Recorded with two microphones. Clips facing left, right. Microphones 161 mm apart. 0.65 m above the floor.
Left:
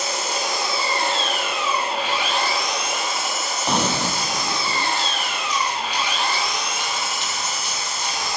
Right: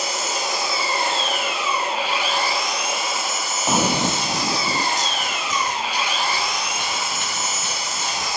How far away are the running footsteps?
About 0.7 m.